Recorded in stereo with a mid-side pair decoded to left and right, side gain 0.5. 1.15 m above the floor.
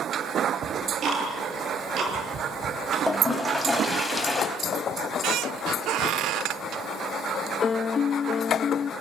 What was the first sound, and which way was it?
Ticking, 55° right.